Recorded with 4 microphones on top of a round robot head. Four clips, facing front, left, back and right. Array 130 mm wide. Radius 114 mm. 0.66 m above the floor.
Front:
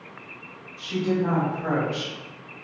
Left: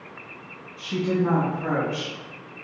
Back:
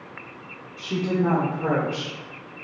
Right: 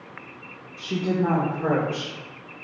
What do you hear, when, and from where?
0.8 s a woman speaking: 135° right, 1.6 m; by 2.1 s 125° right, 2.5 m